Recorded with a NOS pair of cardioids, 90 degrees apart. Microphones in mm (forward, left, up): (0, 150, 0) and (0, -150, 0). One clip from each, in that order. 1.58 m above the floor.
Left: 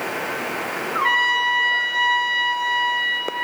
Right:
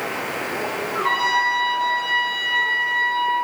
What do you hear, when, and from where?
0.9 s a trumpet: 70° left, 6 m